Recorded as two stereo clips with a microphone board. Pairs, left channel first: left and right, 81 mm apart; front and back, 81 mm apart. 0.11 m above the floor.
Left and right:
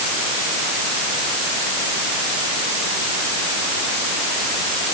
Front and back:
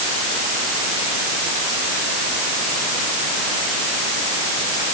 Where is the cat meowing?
I don't hear a cat meowing.